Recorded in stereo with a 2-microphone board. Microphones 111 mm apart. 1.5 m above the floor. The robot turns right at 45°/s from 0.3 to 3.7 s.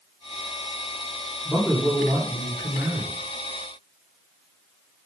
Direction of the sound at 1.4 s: 175° left.